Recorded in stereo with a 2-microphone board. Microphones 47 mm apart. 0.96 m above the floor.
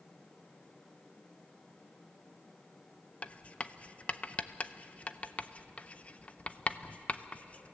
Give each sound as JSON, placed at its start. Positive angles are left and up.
{"t": 3.2, "sound": "writing", "side_deg": 30, "distance_m": 0.5}